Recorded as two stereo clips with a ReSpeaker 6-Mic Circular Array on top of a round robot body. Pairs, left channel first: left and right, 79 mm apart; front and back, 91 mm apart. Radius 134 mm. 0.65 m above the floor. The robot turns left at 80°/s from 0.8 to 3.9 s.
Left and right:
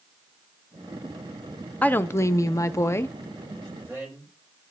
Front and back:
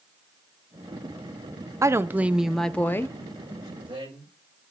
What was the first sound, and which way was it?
A woman speaking, 145° left.